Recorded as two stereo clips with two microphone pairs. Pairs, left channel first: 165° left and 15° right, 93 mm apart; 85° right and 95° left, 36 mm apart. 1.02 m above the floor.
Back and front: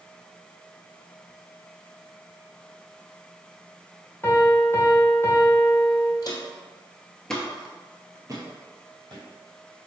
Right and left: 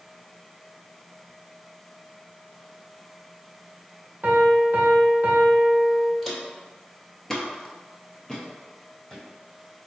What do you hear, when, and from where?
4.2 s a piano: 110° left, 0.8 m
6.2 s footsteps: 165° right, 1.5 m; by 9.2 s straight ahead, 1.8 m